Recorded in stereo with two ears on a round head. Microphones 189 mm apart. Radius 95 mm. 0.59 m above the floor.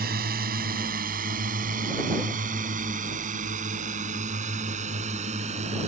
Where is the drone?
45° right (ahead or behind); by 5.9 s 35° right (ahead or behind).